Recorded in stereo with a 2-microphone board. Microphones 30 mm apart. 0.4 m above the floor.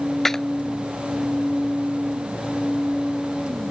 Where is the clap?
10° left (ahead or behind).